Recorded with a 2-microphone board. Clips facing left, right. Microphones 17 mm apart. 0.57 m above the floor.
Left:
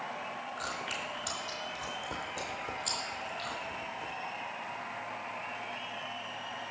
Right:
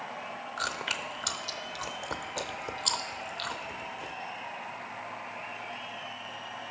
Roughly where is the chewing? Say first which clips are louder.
Right 6 dB; right.